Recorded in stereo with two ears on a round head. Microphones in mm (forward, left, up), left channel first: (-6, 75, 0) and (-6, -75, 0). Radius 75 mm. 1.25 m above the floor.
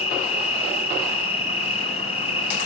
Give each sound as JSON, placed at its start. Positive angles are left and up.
{"t": 0.0, "sound": "an insect", "side_deg": 40, "distance_m": 5.5}